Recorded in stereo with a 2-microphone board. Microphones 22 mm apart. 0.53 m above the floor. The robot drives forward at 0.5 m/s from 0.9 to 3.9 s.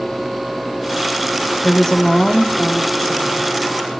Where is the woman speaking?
20° left (ahead or behind), 0.6 m; by 3.7 s 10° left (ahead or behind), 1.3 m.